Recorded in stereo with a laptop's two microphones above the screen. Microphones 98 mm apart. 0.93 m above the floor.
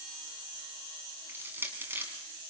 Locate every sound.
1.3 s crushing: 25° right (ahead or behind), 4 m